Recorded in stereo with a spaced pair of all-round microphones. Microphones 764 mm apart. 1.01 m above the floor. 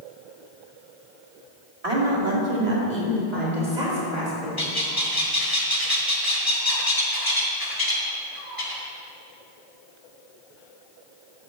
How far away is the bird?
About 1.6 m.